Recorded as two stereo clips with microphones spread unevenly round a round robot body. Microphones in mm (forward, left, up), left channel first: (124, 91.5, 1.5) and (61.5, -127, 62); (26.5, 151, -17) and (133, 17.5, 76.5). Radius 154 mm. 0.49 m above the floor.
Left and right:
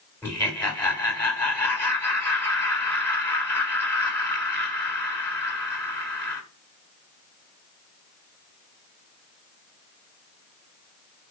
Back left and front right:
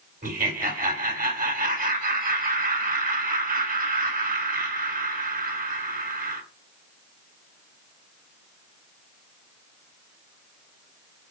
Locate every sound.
0.2 s laughter: straight ahead, 3.5 m